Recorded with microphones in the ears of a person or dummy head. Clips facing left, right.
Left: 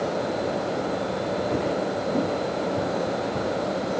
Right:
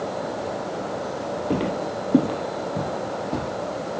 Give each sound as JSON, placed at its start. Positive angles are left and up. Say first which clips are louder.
{"t": 1.5, "sound": "footsteps", "louder": "even", "side_deg": -55, "distance_m": 2.5}